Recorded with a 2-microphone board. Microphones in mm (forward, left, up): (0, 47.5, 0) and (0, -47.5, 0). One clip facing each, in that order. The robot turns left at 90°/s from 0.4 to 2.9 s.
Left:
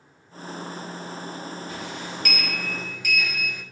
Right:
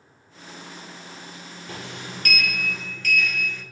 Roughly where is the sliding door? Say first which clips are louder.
Left 3 dB; right.